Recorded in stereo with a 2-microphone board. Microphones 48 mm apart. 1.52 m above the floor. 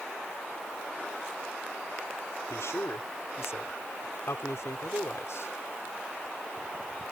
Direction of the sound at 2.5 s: 70° left (ahead or behind).